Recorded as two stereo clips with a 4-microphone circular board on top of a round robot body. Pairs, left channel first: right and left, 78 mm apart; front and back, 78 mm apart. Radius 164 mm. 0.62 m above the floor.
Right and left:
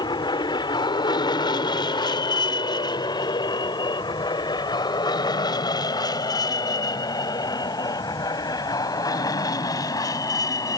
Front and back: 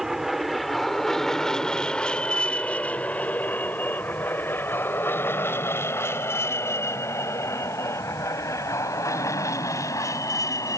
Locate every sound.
0.0 s an aircraft: 95° right; by 10.8 s 50° right